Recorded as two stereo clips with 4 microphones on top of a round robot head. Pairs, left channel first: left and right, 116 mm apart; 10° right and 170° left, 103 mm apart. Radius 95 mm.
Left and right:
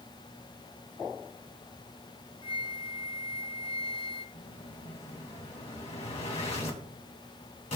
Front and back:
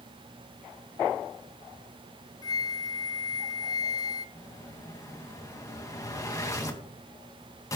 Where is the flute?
45° left, 0.8 m.